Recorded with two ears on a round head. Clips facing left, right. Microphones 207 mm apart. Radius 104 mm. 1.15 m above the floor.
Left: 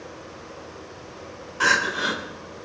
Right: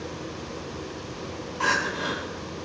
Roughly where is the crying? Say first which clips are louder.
Left 2 dB; left.